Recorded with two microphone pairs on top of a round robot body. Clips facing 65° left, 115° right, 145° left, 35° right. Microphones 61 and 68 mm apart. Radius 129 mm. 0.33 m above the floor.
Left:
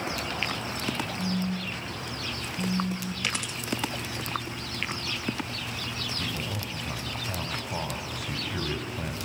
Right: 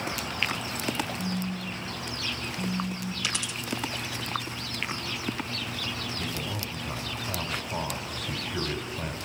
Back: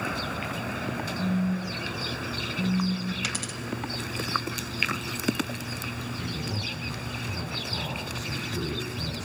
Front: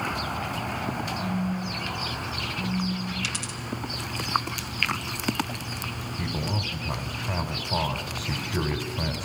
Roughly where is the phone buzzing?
Behind left.